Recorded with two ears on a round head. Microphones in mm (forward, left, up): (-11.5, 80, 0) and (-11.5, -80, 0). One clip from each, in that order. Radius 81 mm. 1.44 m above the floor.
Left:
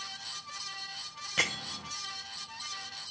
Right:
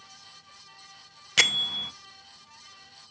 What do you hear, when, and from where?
1.4 s a bell: 80° right, 0.8 m